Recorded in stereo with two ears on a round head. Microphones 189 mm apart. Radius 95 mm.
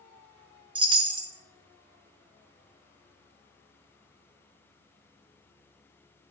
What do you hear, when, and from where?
0.8 s a chime: 25° right (ahead or behind), 0.7 m